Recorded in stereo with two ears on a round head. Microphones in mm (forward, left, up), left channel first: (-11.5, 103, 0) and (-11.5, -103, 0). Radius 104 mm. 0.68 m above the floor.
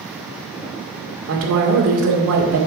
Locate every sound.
1.3 s a woman speaking: 65° right (ahead or behind), 2 m